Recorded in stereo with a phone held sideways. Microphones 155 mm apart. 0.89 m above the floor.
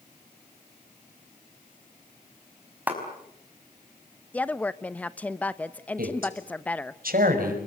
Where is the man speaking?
70° right (ahead or behind), 5.5 m.